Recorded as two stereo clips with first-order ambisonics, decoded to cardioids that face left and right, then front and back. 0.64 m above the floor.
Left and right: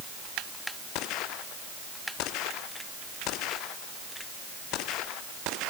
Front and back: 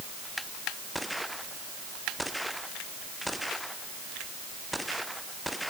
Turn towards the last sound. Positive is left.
No sound to turn to.